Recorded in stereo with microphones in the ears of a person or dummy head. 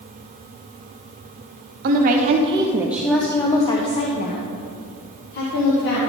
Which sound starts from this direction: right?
A woman speaking, at 1.8 s.